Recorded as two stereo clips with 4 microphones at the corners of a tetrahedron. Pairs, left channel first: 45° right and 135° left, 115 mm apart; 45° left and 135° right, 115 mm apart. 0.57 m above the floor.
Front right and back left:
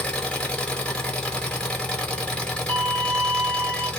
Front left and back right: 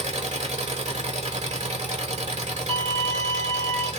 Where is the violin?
120° left, 1.7 m.